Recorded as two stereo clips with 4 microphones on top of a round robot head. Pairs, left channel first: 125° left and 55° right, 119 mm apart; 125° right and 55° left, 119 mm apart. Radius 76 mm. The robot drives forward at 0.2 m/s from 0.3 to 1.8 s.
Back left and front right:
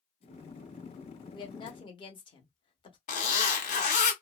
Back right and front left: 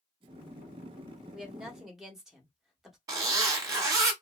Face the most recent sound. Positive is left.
turn(degrees=115)